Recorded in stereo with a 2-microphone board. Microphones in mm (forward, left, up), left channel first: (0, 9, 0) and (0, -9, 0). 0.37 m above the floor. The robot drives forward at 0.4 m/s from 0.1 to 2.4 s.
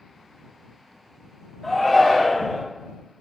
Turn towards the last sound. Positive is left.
turn(degrees=5)  # may be behind; listen again after turning